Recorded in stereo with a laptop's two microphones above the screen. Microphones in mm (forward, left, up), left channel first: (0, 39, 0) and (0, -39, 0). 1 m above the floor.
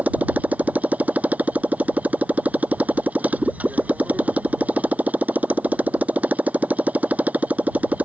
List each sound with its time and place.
0.0 s a motorcycle: 20° right (ahead or behind)